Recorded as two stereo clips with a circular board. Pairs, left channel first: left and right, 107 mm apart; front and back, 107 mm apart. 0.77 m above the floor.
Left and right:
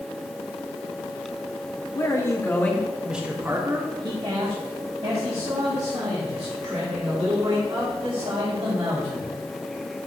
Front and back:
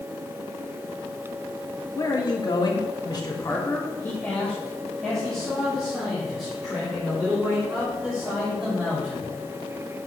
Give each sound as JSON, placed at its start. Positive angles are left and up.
{"t": 1.9, "sound": "a man speaking", "azimuth_deg": 45, "distance_m": 1.2}